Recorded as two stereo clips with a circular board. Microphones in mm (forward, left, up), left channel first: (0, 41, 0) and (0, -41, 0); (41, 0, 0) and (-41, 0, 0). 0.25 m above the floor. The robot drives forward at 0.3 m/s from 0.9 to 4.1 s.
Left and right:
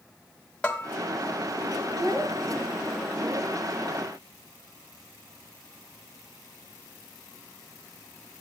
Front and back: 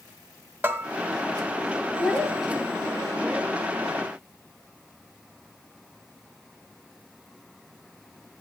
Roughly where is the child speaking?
Right.